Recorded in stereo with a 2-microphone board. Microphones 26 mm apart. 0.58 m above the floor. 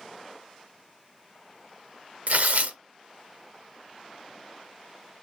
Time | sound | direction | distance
2.3 | tearing paper | 65° right (ahead or behind) | 0.9 m